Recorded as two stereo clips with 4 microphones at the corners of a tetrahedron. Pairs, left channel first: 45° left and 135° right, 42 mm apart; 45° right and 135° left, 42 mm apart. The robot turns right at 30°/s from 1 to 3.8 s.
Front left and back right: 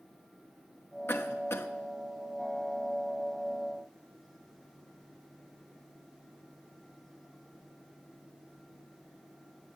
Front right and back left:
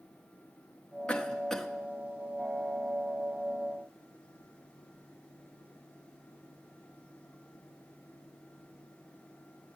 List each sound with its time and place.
1.1 s a cough: 20° left, 1.4 m; by 1.7 s 40° left, 1.4 m